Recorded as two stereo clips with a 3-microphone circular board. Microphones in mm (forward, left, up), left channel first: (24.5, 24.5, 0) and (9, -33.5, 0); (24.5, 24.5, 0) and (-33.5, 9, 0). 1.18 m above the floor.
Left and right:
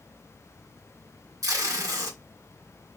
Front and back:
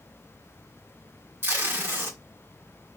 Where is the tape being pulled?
120° right, 1.6 m.